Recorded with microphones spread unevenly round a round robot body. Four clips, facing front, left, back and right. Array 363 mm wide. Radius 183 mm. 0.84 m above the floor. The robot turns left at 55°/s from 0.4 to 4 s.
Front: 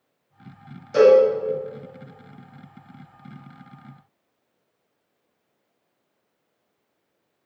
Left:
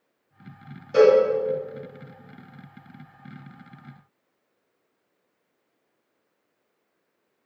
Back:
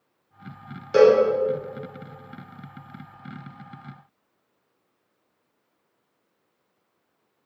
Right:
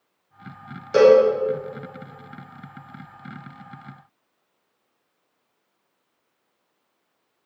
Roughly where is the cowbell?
Behind right.